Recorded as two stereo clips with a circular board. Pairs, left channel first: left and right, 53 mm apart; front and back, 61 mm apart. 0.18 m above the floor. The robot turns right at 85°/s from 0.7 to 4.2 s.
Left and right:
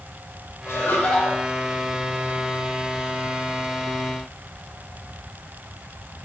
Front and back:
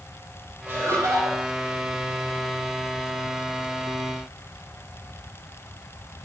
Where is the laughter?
125° left, 5 m; by 1.4 s 175° right, 5 m.